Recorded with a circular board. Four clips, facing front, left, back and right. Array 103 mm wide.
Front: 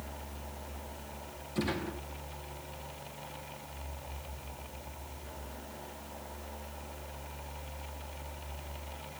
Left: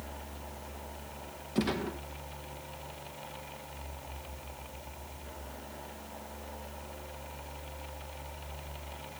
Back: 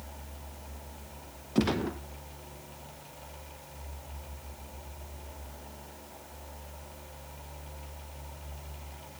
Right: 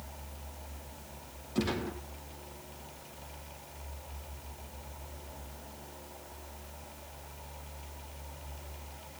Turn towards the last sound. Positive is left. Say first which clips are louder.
# left 1 dB, back 6 dB
turn(degrees=170)